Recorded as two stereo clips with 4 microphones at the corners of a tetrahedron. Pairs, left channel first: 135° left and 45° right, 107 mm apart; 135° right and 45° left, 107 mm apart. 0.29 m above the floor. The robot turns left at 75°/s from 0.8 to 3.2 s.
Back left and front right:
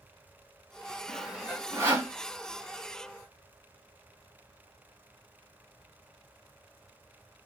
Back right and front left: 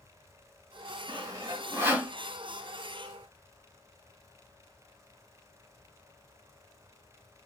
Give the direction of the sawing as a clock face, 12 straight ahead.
10 o'clock.